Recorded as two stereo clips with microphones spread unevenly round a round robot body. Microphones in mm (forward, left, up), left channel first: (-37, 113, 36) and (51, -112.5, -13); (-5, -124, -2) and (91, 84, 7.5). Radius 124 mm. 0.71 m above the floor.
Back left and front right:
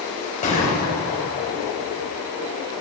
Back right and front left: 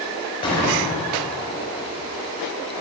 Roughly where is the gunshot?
Behind.